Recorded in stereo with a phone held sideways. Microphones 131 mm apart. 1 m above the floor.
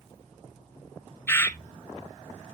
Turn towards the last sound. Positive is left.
turn(degrees=15)  # may be behind; listen again after turning